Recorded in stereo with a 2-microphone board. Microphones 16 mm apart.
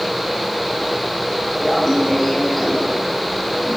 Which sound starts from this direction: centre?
Laughter, at 1.6 s.